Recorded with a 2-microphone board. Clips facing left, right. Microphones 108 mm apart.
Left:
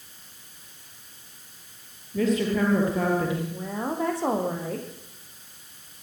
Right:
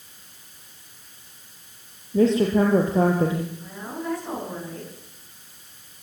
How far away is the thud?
No thud in this recording.